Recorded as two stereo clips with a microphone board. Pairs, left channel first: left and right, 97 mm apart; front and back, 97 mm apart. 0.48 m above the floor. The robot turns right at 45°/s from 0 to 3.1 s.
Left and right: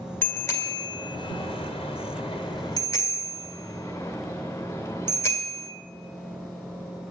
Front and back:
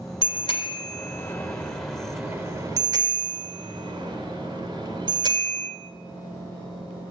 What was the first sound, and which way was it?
A bicycle bell, 20° left.